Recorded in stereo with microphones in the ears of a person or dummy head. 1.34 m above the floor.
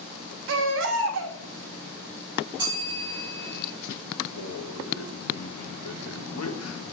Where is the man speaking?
85° left, 1.6 m.